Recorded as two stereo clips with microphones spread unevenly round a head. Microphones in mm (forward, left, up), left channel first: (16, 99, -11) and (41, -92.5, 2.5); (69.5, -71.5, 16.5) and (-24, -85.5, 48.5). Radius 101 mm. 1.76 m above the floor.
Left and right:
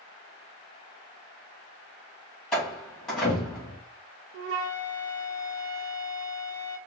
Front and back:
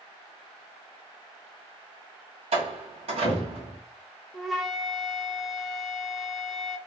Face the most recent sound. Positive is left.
turn(degrees=-90)